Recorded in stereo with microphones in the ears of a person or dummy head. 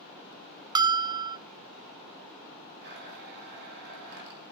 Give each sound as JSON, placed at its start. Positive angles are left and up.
{"t": 0.8, "sound": "a bell", "side_deg": -20, "distance_m": 0.5}
{"t": 2.8, "sound": "a blender", "side_deg": -60, "distance_m": 8.0}